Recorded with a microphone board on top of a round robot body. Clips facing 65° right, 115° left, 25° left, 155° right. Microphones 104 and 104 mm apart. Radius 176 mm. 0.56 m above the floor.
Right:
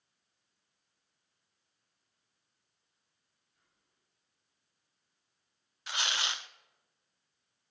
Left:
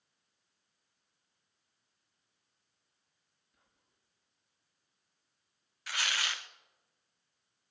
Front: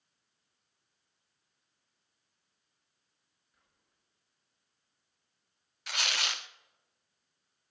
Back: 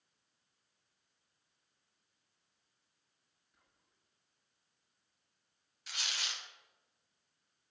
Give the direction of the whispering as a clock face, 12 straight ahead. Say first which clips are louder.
Left 3 dB, even; 8 o'clock.